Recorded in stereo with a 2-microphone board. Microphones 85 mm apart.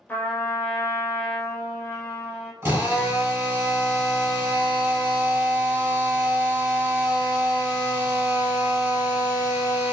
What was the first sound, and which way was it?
A trumpet, 20° left (ahead or behind).